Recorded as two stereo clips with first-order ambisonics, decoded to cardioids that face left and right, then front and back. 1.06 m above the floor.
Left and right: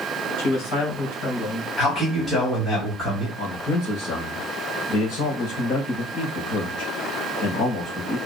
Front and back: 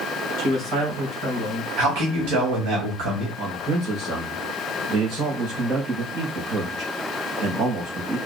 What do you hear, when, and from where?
0.4 s a man speaking: 125° left, 3 m
1.8 s a man speaking: 165° left, 1.5 m
3.4 s a man speaking: 130° left, 2.5 m